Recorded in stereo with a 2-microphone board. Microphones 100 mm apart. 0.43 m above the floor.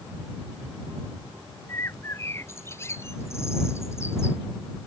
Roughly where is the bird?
Left.